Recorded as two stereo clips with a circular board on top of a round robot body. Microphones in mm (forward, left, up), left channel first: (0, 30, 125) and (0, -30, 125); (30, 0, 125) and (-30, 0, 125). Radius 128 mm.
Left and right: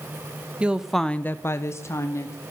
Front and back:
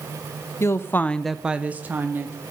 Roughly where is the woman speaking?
Ahead right.